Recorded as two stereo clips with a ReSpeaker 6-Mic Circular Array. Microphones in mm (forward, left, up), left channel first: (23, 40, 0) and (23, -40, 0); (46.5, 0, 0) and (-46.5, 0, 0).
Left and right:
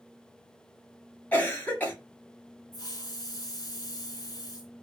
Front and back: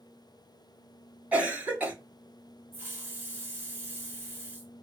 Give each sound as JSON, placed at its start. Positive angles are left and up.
{"t": 1.3, "sound": "a cough", "azimuth_deg": 125, "distance_m": 1.4}
{"t": 2.7, "sound": "a hiss", "azimuth_deg": 115, "distance_m": 1.4}